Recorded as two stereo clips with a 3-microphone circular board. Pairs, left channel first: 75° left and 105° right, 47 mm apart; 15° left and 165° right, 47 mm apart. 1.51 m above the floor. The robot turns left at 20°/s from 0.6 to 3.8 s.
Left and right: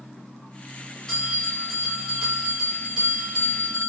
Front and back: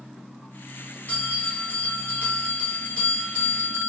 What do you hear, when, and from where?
1.1 s a bell: straight ahead, 1.3 m; by 3.9 s 55° right, 1.3 m